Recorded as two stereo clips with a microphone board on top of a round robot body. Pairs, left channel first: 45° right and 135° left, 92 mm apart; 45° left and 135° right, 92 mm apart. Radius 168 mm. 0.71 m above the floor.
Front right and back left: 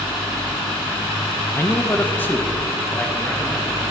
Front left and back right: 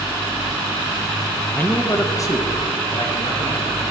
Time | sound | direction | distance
1.5 | a man speaking | 10° right | 1.1 m